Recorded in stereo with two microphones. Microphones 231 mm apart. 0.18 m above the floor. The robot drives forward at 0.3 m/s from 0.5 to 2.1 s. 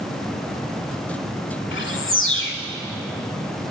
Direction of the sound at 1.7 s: 55° left (ahead or behind).